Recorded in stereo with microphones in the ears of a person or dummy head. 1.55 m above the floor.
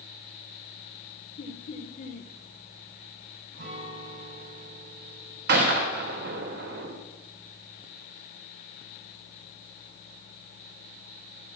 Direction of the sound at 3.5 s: 75° right (ahead or behind).